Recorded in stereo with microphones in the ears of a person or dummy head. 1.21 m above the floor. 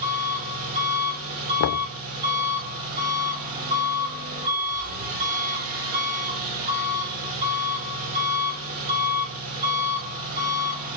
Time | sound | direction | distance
0.0 | an engine running | 45° right (ahead or behind) | 6 m
1.6 | knocking | 65° left (ahead or behind) | 0.6 m